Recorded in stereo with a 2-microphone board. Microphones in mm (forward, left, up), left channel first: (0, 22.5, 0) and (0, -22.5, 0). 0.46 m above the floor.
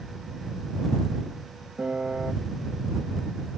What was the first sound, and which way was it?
A piano, 30° right (ahead or behind).